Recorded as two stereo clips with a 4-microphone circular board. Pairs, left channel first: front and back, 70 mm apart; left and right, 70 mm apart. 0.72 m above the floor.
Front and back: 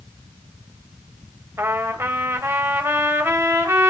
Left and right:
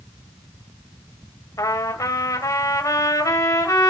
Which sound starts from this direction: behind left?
A trumpet, at 1.6 s.